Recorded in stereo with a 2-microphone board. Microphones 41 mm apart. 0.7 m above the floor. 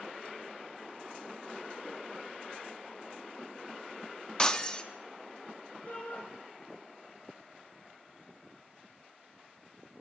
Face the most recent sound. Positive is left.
turn(degrees=55)  # may be behind; listen again after turning